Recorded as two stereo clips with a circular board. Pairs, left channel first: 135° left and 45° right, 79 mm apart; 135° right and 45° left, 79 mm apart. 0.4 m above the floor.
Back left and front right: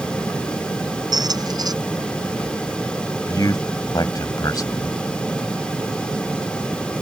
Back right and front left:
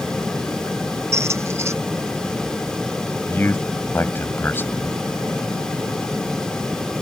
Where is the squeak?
10° right.